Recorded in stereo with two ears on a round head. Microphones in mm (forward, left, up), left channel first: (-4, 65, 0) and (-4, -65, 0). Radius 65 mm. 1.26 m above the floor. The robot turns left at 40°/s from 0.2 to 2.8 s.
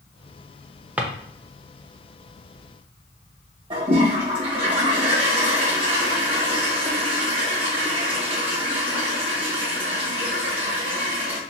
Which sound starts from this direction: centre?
A drawer, at 1.0 s.